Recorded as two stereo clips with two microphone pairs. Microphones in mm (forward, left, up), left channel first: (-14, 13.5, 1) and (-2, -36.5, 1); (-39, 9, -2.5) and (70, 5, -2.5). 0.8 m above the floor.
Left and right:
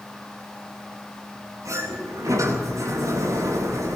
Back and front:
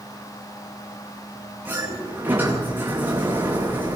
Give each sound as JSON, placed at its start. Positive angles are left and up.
{"t": 1.6, "sound": "a sliding door", "azimuth_deg": -75, "distance_m": 9.5}